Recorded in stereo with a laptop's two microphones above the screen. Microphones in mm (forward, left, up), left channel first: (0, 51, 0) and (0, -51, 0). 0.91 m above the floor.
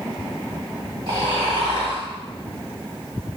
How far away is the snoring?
About 1.8 m.